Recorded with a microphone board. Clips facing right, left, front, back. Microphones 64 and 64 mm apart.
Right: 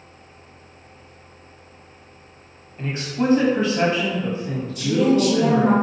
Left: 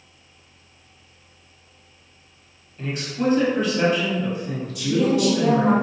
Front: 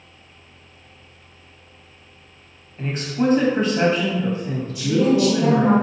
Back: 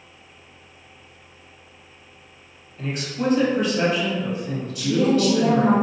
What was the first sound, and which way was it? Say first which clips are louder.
A man speaking: right 1 dB, front 3 dB; 40° right.